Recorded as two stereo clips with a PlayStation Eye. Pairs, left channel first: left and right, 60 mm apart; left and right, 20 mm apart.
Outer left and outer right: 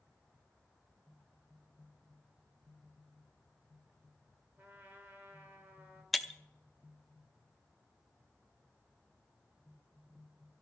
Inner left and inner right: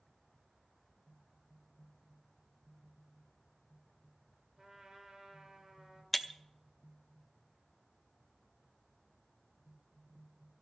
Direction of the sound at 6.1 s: Centre (ahead or behind).